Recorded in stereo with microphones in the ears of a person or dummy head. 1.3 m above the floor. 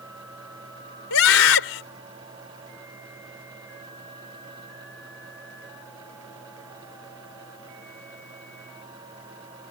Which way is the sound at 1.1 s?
85° left.